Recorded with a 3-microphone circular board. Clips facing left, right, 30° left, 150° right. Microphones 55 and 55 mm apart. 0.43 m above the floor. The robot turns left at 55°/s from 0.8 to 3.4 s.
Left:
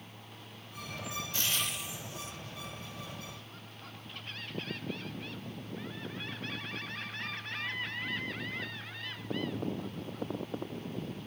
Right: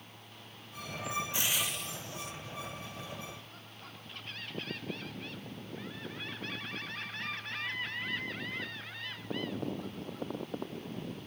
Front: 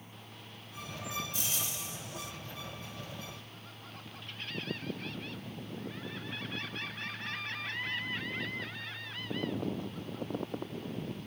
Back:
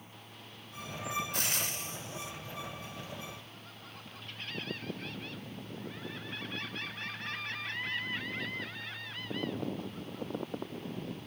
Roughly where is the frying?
Behind.